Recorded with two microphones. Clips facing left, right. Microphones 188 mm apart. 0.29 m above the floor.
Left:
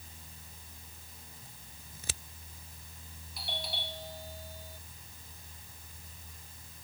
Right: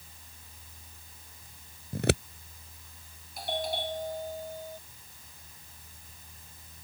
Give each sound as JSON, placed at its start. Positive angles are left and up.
{"t": 1.9, "sound": "scissors", "side_deg": -70}
{"t": 3.4, "sound": "a doorbell", "side_deg": -50}